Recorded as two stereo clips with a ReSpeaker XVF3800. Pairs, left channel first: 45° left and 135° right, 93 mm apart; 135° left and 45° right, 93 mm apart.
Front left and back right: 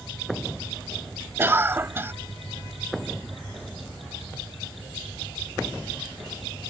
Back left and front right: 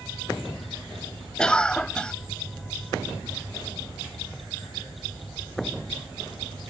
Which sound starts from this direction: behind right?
A cough, at 1.4 s.